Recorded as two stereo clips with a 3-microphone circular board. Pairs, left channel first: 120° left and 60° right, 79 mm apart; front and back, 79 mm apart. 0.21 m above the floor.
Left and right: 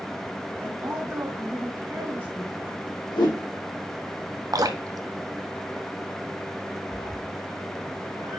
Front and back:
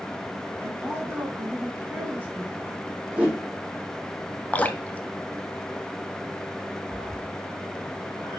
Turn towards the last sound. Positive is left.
turn(degrees=140)